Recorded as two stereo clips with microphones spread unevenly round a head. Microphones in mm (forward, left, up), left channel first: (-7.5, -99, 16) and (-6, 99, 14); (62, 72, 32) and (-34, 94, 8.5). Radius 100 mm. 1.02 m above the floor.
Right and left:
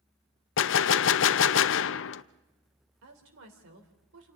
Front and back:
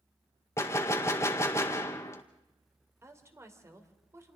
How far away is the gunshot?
About 0.5 m.